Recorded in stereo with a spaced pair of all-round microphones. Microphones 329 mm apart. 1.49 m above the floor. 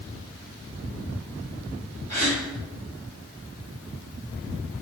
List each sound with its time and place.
2.1 s a gasp: 55° left (ahead or behind), 1.9 m